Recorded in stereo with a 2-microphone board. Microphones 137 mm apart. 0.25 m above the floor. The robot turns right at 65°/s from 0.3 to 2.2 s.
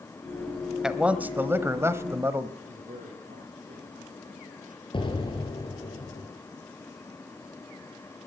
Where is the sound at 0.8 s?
5° right (ahead or behind), 1.1 m; by 2.5 s 20° right (ahead or behind), 1.1 m.